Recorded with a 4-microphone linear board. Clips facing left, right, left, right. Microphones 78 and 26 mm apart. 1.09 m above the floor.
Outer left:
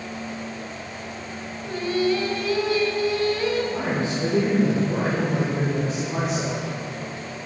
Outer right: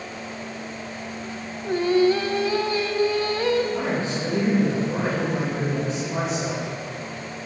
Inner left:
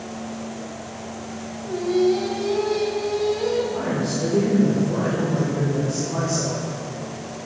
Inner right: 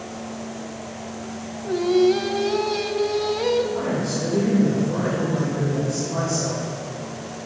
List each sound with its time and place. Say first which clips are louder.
1.6 s singing: outer right 5 dB, inner right 2 dB; 35° right (ahead or behind), 1.0 m
3.7 s a man speaking: even, even; 50° left (ahead or behind), 3.5 m